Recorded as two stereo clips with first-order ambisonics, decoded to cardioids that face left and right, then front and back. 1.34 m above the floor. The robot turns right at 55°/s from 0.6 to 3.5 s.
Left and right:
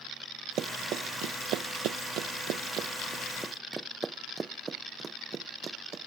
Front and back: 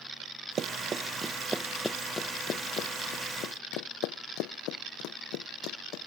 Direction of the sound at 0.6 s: 130° right.